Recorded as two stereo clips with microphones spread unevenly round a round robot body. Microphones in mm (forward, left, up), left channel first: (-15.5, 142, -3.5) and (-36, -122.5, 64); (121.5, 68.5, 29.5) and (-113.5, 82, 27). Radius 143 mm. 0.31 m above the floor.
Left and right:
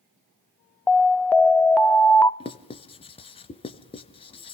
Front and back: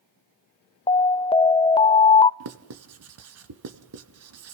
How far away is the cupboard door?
No cupboard door in this recording.